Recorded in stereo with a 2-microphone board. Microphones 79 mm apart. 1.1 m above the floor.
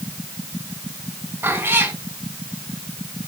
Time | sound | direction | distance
1.4 | a cat meowing | 30° right (ahead or behind) | 3.5 m